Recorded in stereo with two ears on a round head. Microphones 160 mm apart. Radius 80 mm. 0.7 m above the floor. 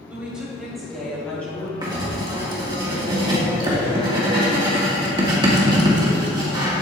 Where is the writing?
25° right (ahead or behind), 1.7 m.